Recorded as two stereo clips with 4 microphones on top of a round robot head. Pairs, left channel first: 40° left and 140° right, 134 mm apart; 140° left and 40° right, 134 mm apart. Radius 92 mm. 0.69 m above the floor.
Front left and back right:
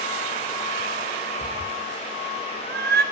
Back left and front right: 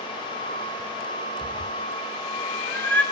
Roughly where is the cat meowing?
Behind.